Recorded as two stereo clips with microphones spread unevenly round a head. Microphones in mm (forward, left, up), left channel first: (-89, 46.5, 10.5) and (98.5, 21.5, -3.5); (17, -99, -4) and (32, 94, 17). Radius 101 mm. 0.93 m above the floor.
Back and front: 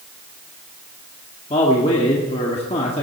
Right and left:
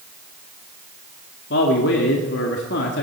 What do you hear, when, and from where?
1.5 s a man speaking: 125° right, 1.9 m